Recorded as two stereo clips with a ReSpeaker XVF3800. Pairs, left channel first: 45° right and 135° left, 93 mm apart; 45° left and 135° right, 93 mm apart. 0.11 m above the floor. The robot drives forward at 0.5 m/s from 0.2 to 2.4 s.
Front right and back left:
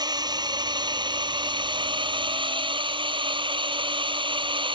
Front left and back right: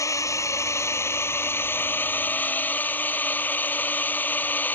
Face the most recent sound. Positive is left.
turn(degrees=115)